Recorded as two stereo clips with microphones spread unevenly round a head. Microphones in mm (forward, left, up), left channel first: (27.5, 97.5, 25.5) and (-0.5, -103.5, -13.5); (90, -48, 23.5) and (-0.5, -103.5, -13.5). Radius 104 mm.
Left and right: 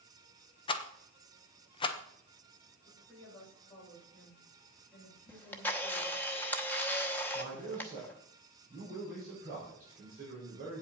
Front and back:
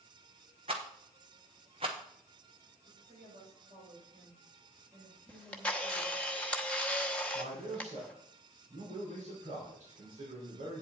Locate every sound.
0.7 s a rattle: 150° left, 0.7 m
2.9 s a woman speaking: 165° left, 6.5 m
5.3 s a camera shutter: 30° left, 0.9 m
7.3 s a man speaking: 150° right, 4.5 m